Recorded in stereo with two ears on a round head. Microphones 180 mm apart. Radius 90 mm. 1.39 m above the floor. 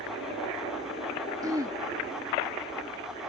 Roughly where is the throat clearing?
Centre.